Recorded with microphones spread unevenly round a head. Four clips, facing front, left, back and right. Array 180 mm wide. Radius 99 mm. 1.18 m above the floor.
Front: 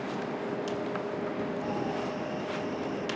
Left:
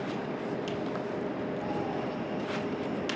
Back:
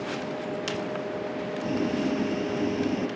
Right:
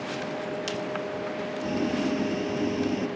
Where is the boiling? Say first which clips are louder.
Right 9 dB, back 5 dB; 115° right.